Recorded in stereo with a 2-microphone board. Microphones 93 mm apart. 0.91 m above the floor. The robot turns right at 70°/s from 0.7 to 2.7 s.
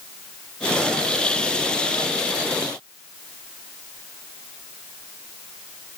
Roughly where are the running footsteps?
I don't hear running footsteps.